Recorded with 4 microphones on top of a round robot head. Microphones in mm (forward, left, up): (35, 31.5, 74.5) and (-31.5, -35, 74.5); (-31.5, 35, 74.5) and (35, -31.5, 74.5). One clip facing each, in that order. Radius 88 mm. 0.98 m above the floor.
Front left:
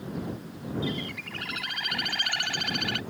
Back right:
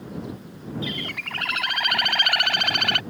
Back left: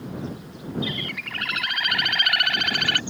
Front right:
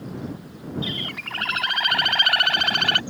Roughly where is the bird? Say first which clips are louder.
Back right 1 dB, back left 1 dB; right.